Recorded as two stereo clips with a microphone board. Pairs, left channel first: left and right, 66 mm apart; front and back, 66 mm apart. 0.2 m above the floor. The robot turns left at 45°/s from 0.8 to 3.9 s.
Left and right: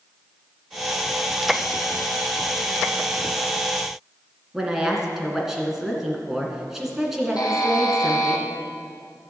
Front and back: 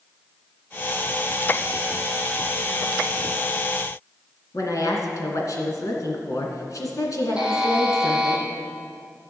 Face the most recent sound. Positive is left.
turn(degrees=105)